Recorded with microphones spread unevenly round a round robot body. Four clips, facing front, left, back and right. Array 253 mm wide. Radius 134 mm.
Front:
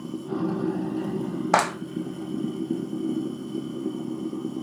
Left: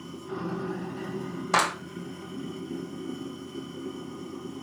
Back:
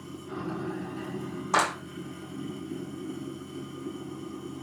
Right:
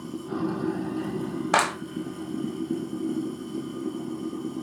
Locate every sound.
0.0 s running water: 25° right, 1.9 m
1.5 s a clap: 10° right, 1.6 m